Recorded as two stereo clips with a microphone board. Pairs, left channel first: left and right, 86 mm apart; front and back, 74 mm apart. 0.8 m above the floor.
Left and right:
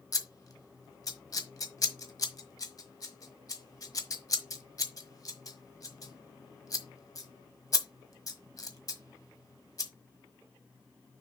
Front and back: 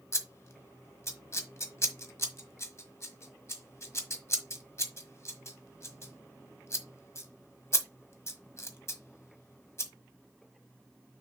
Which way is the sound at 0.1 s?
50° left.